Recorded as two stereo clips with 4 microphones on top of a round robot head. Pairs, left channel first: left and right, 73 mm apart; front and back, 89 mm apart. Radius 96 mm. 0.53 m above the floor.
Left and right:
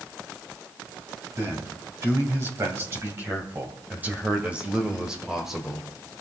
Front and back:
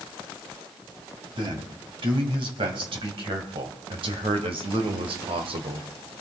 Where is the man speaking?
145° right, 3.5 m; by 5.9 s 175° left, 2 m.